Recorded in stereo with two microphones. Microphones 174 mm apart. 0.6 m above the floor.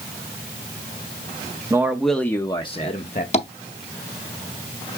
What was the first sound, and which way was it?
A man speaking, 15° right (ahead or behind).